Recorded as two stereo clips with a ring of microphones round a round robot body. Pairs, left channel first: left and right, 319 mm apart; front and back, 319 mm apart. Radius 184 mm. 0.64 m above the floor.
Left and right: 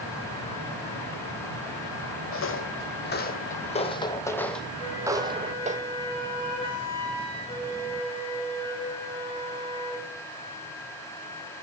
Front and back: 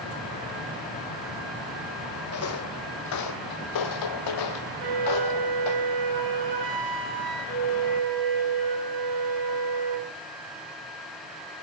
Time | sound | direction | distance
2.3 | footsteps | 45° left | 1.8 m
4.8 | a flute | 165° left | 4.5 m